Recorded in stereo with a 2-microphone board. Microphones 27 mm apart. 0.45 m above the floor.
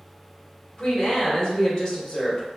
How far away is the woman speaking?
About 1.7 m.